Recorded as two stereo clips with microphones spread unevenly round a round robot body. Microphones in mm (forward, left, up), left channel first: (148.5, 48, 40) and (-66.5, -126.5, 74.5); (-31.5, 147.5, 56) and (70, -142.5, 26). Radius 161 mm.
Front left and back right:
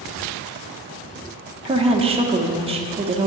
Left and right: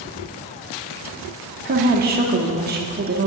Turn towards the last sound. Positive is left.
turn(degrees=-75)